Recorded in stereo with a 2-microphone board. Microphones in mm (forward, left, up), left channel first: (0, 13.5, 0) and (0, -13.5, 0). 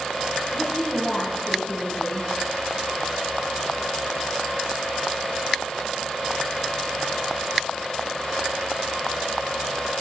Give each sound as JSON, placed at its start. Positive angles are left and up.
{"t": 0.5, "sound": "a woman speaking", "side_deg": -10, "distance_m": 7.5}